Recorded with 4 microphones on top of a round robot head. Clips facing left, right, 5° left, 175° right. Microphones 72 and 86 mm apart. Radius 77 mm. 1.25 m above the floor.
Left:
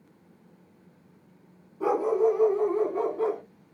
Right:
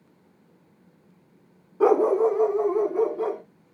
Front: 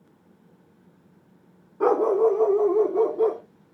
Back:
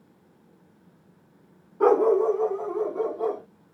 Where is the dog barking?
85° right, 1.0 m; by 3.4 s 5° right, 2 m.